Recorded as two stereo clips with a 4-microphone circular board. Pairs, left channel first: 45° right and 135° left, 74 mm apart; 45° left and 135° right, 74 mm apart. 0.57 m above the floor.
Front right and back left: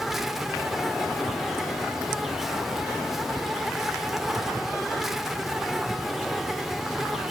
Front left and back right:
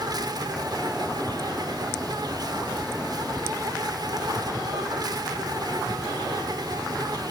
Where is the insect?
140° right, 1.5 m.